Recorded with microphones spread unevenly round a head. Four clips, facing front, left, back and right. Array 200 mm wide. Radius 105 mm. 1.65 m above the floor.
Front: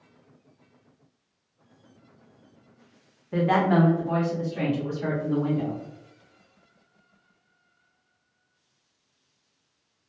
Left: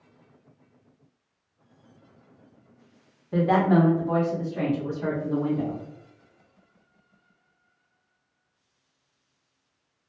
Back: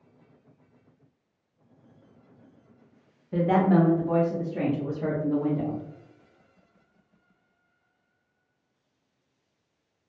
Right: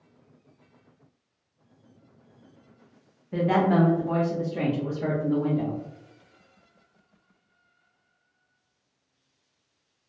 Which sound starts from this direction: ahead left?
A woman speaking, at 3.3 s.